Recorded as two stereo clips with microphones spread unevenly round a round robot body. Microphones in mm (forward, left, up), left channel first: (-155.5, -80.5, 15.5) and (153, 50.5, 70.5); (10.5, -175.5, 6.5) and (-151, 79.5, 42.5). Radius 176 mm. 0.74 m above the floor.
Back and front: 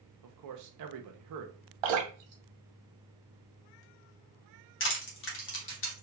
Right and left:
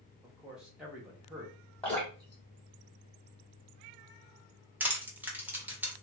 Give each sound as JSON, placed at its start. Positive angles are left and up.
{"t": 0.2, "sound": "a man speaking", "azimuth_deg": 30, "distance_m": 0.7}
{"t": 1.8, "sound": "dripping", "azimuth_deg": 30, "distance_m": 0.8}
{"t": 4.8, "sound": "crushing", "azimuth_deg": -150, "distance_m": 1.0}